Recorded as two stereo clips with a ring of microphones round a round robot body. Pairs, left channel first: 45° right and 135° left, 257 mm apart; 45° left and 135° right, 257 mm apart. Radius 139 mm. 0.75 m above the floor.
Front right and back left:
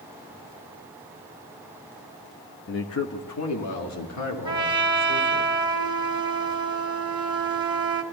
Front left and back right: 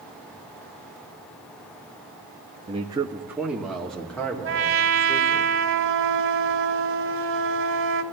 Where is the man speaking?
75° right, 0.9 m; by 5.5 s 35° right, 3 m.